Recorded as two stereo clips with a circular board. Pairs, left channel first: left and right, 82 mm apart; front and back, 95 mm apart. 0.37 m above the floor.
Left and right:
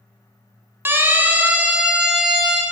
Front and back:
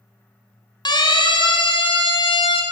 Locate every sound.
0.8 s a siren: 30° right, 3.5 m; by 2.6 s 5° right, 4.5 m